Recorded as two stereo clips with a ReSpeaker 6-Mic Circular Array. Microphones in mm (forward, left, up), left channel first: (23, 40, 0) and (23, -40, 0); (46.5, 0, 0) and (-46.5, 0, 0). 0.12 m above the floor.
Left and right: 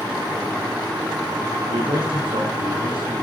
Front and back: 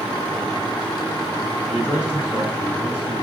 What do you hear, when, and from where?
1.7 s a man speaking: 100° right, 5.5 m